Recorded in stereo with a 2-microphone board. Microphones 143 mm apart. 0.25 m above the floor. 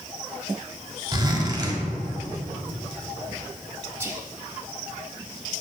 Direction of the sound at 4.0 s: 15° right (ahead or behind).